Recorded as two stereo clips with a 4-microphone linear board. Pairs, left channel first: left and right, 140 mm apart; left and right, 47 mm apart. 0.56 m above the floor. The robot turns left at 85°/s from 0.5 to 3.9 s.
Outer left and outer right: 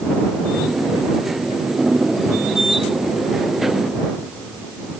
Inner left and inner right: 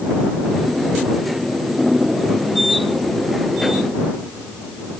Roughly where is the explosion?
No explosion in this recording.